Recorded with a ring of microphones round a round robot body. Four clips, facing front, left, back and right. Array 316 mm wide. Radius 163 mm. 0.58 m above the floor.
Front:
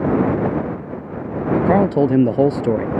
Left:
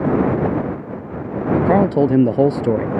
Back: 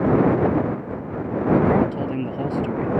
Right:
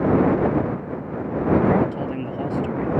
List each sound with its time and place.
1.7 s a man speaking: 45° left